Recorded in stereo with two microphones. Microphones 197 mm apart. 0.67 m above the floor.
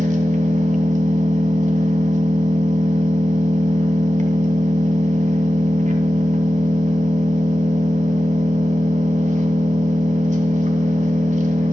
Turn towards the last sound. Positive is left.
turn(degrees=-40)  # may be behind; listen again after turning